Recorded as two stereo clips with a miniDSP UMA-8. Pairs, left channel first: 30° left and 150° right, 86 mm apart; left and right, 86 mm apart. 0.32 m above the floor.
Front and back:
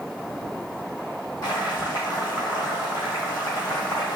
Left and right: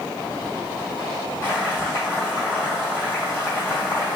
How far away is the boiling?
About 2.0 m.